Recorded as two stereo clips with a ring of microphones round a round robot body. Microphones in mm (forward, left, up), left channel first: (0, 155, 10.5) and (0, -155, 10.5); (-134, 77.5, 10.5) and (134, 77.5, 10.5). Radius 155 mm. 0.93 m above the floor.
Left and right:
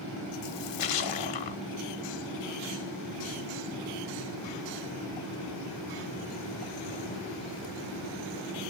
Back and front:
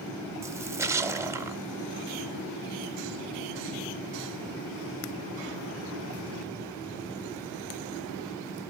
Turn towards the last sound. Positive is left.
turn(degrees=80)